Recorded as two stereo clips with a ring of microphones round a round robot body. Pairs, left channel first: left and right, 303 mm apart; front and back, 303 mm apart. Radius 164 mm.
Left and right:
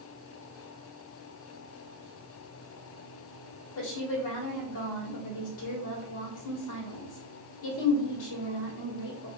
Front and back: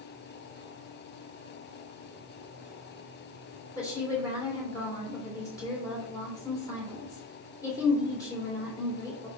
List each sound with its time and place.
3.8 s a woman speaking: 80° left, 2.5 m